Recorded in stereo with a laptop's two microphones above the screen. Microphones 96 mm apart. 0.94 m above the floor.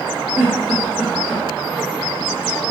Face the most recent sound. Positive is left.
turn(degrees=-20)  # may be behind; listen again after turning